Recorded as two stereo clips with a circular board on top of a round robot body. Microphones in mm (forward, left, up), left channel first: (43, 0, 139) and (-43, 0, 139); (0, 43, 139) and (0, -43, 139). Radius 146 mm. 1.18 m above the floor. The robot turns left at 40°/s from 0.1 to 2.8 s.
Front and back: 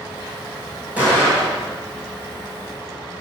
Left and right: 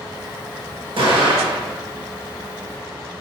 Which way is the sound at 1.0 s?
105° right.